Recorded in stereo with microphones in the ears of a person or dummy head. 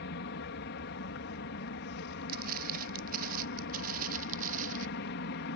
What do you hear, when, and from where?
0.0 s an aircraft: 60° left (ahead or behind)
2.3 s footsteps: 55° right (ahead or behind); by 4.9 s 45° right (ahead or behind)